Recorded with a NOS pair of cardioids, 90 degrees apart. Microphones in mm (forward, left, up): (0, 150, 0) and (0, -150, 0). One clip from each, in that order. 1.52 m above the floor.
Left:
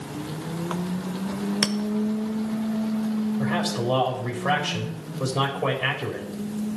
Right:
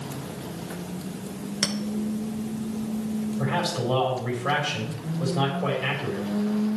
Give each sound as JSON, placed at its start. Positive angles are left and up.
{"t": 1.6, "sound": "a clink", "azimuth_deg": 40, "distance_m": 1.1}
{"t": 3.4, "sound": "a man speaking", "azimuth_deg": 30, "distance_m": 4.0}